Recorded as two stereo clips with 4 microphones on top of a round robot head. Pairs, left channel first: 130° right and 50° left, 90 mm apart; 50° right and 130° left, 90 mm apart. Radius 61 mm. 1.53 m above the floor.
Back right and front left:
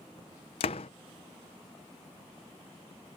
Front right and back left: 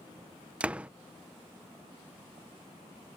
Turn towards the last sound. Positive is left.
turn(degrees=-155)